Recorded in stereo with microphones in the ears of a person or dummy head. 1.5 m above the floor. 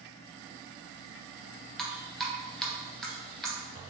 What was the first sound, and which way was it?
Dripping, 5° left (ahead or behind).